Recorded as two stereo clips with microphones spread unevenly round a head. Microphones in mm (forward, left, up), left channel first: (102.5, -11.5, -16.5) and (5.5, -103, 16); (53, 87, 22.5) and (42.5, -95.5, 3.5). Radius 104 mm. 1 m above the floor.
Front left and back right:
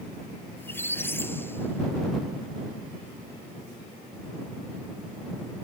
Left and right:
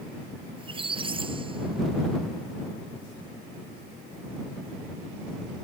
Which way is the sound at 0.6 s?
30° right.